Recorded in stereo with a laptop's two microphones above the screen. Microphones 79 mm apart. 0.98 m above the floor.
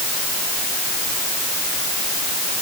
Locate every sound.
Only background noise.